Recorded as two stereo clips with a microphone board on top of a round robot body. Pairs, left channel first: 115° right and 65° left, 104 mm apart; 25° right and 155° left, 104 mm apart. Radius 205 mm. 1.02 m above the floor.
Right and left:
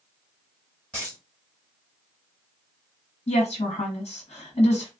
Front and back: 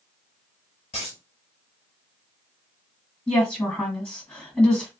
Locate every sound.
0.9 s a dropped coin: 30° right, 1.2 m
3.3 s a woman speaking: 100° right, 1.5 m